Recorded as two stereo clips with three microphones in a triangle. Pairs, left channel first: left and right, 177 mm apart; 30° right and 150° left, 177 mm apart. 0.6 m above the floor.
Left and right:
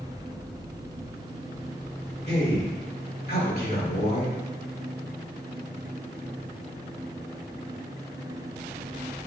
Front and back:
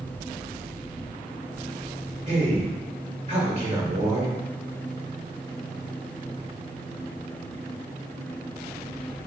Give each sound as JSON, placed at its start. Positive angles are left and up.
{"t": 2.3, "sound": "a man speaking", "azimuth_deg": 100, "distance_m": 1.7}